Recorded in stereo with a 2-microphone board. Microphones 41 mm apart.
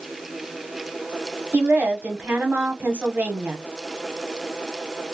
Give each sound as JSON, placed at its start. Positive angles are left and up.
{"t": 1.5, "sound": "a woman speaking", "side_deg": -40, "distance_m": 0.9}